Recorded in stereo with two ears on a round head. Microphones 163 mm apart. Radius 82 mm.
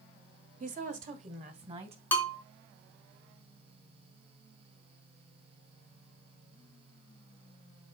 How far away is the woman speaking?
About 1.5 m.